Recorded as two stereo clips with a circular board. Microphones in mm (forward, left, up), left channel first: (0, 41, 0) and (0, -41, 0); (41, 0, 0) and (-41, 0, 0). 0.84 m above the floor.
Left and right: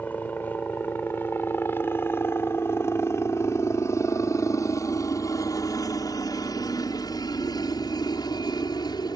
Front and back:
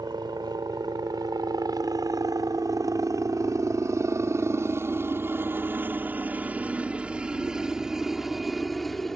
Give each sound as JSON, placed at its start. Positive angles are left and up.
{"t": 0.0, "sound": "a helicopter", "azimuth_deg": 160}